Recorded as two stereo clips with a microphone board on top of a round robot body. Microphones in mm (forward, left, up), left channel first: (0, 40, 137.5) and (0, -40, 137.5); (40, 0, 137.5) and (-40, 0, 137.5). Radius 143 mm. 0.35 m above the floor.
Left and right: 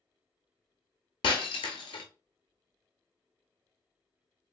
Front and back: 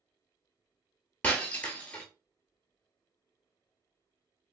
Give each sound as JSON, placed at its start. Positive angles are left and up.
{"t": 1.2, "sound": "breaking glass", "azimuth_deg": 70, "distance_m": 0.6}